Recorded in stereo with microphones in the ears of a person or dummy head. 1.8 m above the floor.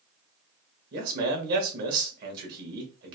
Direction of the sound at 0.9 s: 60° right (ahead or behind).